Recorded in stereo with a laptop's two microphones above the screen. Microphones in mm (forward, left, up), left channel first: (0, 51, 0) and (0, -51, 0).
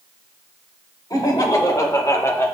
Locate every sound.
1.1 s laughter: 40° left (ahead or behind), 3 m; by 2.5 s 25° left (ahead or behind), 1.6 m